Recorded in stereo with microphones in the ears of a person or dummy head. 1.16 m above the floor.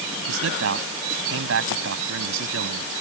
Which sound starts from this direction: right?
A man speaking, at 0.3 s.